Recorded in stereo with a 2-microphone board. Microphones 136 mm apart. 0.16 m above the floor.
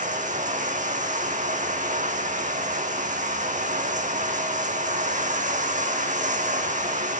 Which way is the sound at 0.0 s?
75° right (ahead or behind).